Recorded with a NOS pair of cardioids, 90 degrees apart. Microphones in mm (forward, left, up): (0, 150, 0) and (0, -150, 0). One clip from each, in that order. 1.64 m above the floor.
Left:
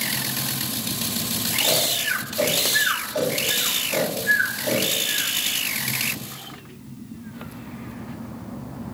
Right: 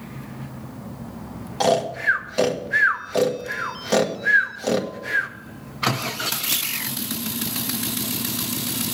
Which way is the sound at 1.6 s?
60° right.